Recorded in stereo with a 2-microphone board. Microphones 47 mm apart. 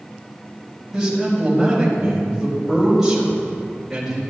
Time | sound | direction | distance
0.9 | a man speaking | 10° right (ahead or behind) | 4 m